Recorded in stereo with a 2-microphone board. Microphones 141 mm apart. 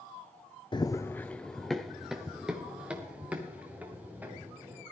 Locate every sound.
0.7 s running footsteps: 35° left (ahead or behind), 0.7 m; by 4.8 s 15° right (ahead or behind), 5 m